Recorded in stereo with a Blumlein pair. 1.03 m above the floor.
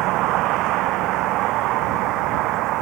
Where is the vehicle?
40° right.